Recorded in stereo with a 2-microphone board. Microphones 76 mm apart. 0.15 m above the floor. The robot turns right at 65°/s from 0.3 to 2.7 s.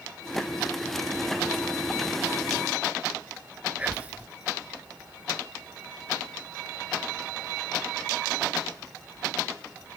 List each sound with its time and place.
3.8 s whispering: 20° right (ahead or behind)